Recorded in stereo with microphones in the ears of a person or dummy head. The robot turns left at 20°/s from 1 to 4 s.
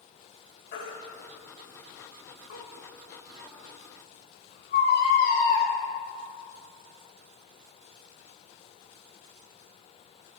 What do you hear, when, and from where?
0.7 s a baby crying: 60° left (ahead or behind), 4 m; by 5.7 s 55° left (ahead or behind), 4 m